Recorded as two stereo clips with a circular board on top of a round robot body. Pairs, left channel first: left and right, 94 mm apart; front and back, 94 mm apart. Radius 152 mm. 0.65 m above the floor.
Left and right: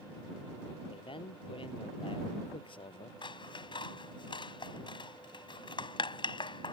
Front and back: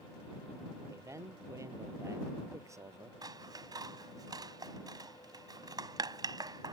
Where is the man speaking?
120° left.